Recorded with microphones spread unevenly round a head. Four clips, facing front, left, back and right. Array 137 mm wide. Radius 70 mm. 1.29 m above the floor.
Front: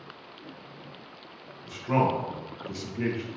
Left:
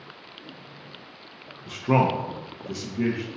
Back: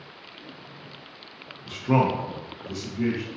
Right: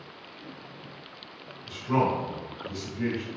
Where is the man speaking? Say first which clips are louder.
Left 3 dB, back 3 dB; 120° left, 0.6 m; by 3.3 s 55° left, 1.1 m.